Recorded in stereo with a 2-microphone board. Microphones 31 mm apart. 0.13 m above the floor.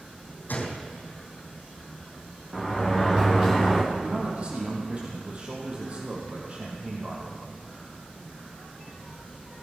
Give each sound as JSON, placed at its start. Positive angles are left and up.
{"t": 0.5, "sound": "a gunshot", "side_deg": 60, "distance_m": 2.5}
{"t": 2.5, "sound": "a sliding door", "side_deg": -25, "distance_m": 3.5}
{"t": 3.9, "sound": "a man speaking", "side_deg": -40, "distance_m": 4.0}